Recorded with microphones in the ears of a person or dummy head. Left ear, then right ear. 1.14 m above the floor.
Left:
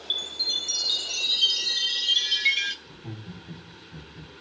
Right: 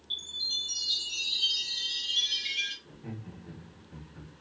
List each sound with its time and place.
0.1 s a chime: 60° left (ahead or behind), 0.6 m
2.9 s laughter: 45° right (ahead or behind), 1.3 m